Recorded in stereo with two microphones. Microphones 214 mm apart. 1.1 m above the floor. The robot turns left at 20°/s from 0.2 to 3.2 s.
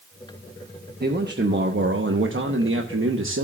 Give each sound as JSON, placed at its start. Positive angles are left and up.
{"t": 1.0, "sound": "a man speaking", "azimuth_deg": -50, "distance_m": 1.0}